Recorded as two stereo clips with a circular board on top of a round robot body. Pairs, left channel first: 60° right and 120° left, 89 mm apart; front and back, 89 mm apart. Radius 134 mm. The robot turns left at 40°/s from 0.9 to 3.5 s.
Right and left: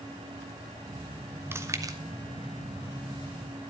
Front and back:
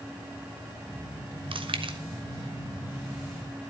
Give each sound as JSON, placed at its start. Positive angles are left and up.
{"t": 1.5, "sound": "chewing", "azimuth_deg": 180, "distance_m": 1.8}